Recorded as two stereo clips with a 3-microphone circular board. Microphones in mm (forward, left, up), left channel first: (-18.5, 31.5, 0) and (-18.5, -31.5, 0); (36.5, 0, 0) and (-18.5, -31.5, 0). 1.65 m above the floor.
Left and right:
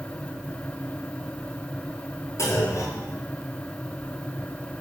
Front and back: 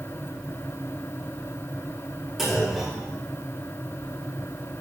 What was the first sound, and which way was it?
A clunk, 125° left.